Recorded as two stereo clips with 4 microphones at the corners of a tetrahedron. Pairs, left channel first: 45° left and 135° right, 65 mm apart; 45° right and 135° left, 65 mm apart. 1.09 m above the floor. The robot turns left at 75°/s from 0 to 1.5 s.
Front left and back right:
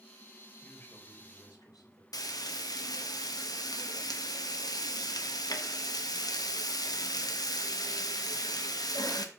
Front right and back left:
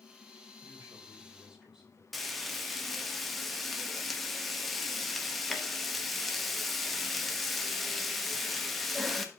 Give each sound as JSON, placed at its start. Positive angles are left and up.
{"t": 0.6, "sound": "a man speaking", "azimuth_deg": 120, "distance_m": 3.5}
{"t": 2.1, "sound": "frying", "azimuth_deg": 45, "distance_m": 0.9}